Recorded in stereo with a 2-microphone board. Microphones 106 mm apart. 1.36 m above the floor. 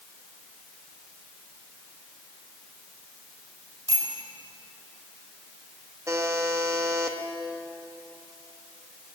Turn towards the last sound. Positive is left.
turn(degrees=-30)  # may be behind; listen again after turning